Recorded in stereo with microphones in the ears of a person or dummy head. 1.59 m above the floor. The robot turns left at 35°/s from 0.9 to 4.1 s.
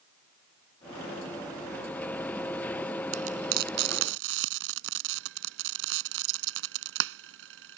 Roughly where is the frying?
Right.